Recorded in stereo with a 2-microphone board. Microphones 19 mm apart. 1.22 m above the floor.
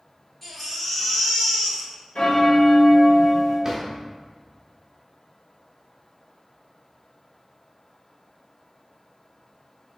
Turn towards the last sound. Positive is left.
turn(degrees=-20)  # may be behind; listen again after turning